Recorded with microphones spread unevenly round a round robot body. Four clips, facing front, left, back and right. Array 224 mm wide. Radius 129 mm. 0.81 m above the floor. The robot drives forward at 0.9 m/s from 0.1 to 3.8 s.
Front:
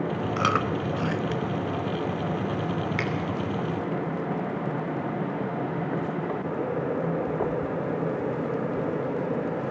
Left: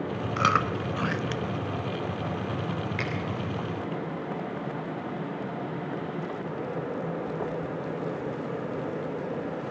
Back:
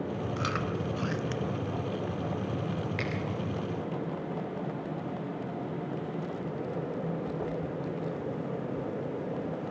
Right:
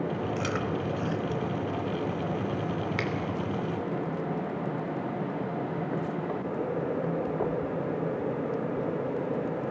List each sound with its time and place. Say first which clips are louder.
0.4 s chewing: left 5 dB, front 9 dB; 35° left, 1.0 m; by 1.6 s 130° left, 0.8 m
3.0 s a finger snap: right 1 dB, front 5 dB; 105° right, 2.5 m